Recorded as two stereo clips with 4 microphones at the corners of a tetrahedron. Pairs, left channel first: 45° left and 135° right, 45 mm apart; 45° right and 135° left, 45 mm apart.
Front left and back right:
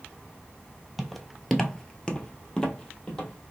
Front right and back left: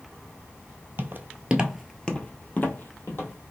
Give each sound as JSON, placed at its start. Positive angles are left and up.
{"t": 1.0, "sound": "footsteps", "azimuth_deg": 135, "distance_m": 0.8}